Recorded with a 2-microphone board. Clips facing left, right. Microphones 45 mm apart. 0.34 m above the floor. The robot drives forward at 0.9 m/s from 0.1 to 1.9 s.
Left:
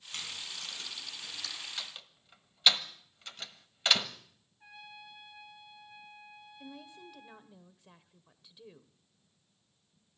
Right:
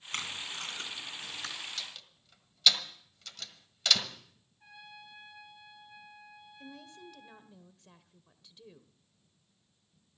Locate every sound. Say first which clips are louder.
0.1 s tape being pulled: right 4 dB; 55° right (ahead or behind), 2.5 m; by 1.6 s 40° right (ahead or behind), 3.5 m
1.8 s a door slam: even; 20° left (ahead or behind), 1.5 m; by 4.1 s 25° left (ahead or behind), 1.4 m
4.6 s a trumpet: left 1 dB; 10° left (ahead or behind), 5 m
6.6 s a woman speaking: even; 10° left (ahead or behind), 1.1 m